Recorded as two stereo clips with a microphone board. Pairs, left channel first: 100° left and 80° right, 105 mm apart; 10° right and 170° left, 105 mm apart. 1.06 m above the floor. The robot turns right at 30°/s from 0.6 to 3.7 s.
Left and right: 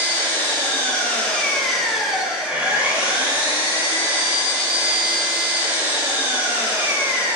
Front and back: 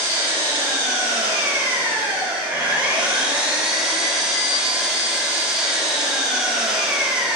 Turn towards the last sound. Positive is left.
turn(degrees=-115)